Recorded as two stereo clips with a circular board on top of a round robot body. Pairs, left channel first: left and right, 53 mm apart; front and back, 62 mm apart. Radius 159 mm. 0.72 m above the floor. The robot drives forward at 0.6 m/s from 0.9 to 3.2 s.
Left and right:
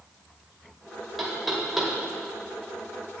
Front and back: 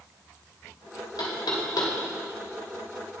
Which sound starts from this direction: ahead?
Knocking, at 1.2 s.